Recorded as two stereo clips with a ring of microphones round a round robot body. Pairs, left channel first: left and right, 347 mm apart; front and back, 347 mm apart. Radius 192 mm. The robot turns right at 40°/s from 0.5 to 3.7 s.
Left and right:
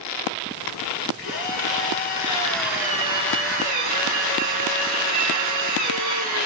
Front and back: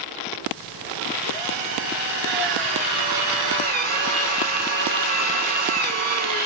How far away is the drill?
About 6 m.